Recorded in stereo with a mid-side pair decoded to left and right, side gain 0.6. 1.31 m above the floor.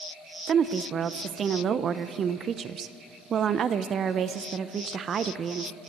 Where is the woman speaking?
40° right, 0.6 m.